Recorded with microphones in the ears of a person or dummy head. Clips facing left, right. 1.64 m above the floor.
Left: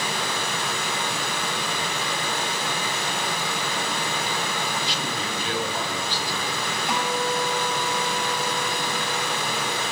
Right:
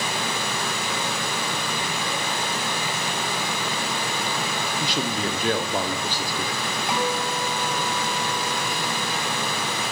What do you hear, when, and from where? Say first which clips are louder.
0.0 s a fan: right 1 dB; 15° right (ahead or behind), 5.5 m
4.8 s a man speaking: right 4 dB; 40° right (ahead or behind), 1.0 m
6.9 s a guitar: even; centre (ahead or behind), 8.5 m